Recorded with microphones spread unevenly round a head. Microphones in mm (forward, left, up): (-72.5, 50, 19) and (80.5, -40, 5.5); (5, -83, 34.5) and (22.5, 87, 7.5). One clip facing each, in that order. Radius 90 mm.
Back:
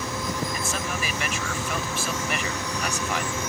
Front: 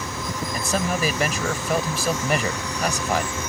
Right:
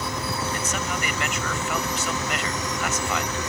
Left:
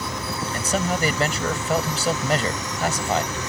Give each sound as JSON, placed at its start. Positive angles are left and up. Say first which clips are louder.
{"t": 0.5, "sound": "a man speaking", "louder": "front 6 dB, left 5 dB", "azimuth_deg": 25}